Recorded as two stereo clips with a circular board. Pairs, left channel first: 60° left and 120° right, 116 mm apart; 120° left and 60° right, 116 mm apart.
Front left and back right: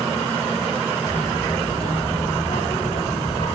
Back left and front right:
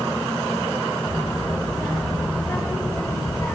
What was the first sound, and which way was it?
A child speaking, 40° left.